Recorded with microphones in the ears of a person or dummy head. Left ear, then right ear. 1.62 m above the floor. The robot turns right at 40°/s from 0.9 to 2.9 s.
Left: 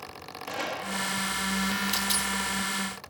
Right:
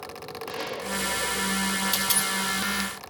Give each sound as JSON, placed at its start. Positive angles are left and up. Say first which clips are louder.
{"t": 0.5, "sound": "a gunshot", "louder": "even", "side_deg": 15, "distance_m": 2.5}
{"t": 1.9, "sound": "a dropped coin", "louder": "right 2 dB", "side_deg": 0, "distance_m": 3.0}